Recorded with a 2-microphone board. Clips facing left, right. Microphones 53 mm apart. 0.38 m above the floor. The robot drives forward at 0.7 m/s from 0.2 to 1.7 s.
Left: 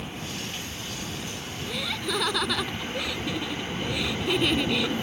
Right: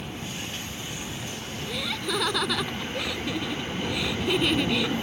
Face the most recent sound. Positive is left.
turn(degrees=0)  # may be behind; listen again after turning